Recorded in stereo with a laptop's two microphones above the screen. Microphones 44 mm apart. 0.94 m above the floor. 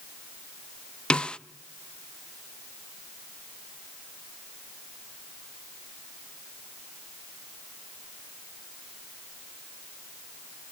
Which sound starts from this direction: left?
A snare drum, at 1.1 s.